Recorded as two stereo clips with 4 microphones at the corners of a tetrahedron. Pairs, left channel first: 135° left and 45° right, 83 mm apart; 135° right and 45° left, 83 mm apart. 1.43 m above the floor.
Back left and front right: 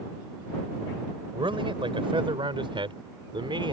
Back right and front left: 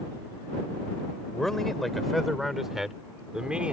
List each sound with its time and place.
1.3 s a man speaking: 50° right; by 3.7 s 30° right